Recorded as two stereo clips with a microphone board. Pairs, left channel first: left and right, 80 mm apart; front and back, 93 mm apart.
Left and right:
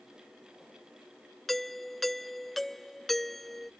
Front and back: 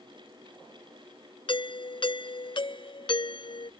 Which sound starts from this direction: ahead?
A doorbell, at 1.5 s.